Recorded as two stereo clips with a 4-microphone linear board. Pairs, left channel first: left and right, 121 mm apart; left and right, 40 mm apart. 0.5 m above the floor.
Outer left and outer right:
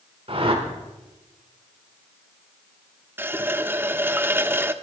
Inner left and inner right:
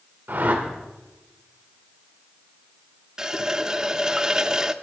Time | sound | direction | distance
0.3 | a whoosh | 50° right (ahead or behind) | 1.9 m
3.2 | a running tap | 15° right (ahead or behind) | 0.6 m